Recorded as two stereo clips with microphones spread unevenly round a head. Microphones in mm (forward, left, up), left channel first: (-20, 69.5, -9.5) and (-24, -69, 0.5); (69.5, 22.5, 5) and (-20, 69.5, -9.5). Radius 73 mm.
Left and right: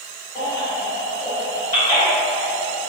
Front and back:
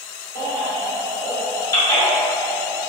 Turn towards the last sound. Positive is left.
turn(degrees=15)